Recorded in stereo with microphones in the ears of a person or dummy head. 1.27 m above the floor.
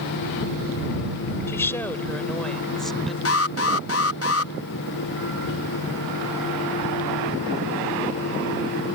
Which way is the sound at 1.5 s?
15° left (ahead or behind).